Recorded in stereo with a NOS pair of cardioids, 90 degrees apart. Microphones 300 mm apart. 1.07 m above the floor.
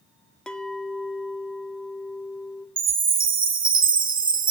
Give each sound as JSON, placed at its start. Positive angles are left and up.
{"t": 0.5, "sound": "a clink", "azimuth_deg": 5, "distance_m": 0.6}
{"t": 2.8, "sound": "a chime", "azimuth_deg": -30, "distance_m": 1.0}